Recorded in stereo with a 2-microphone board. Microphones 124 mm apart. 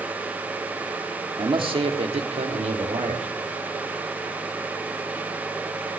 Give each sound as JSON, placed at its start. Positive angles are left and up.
{"t": 1.4, "sound": "a man speaking", "side_deg": -40, "distance_m": 1.5}